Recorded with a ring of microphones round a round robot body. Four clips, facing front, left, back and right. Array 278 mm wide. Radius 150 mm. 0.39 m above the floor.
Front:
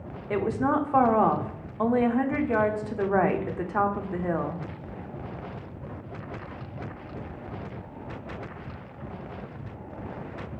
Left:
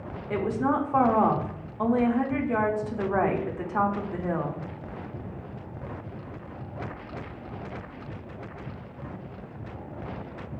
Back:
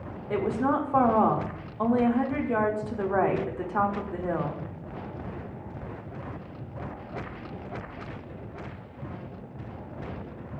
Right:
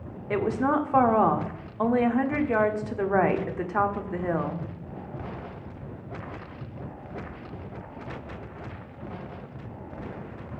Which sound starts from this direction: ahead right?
A woman speaking, at 0.3 s.